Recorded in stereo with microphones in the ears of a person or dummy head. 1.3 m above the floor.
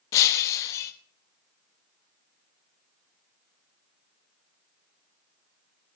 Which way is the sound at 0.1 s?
15° left (ahead or behind).